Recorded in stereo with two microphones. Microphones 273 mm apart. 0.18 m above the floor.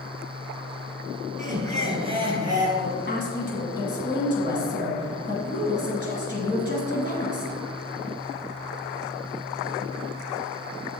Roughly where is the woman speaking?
Left.